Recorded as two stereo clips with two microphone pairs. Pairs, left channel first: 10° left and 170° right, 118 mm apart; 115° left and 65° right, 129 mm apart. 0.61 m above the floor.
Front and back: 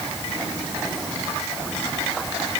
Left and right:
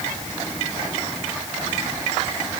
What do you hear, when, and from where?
Only background noise.